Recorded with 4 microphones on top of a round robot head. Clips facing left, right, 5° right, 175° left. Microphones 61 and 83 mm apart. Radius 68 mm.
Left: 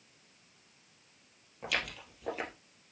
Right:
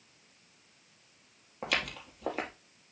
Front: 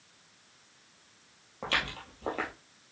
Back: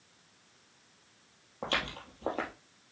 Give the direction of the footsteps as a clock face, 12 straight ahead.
4 o'clock.